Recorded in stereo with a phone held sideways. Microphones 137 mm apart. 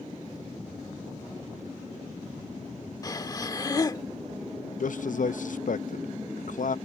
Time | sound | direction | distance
3.0 | breathing | 30° left (ahead or behind) | ?
4.8 | a man speaking | 70° left (ahead or behind) | ?